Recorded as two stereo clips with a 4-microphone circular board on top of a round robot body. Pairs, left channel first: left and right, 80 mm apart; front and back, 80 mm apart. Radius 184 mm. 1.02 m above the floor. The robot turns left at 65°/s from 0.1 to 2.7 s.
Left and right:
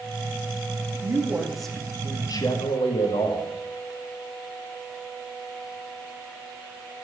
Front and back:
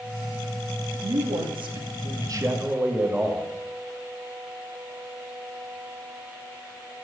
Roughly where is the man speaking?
Behind right.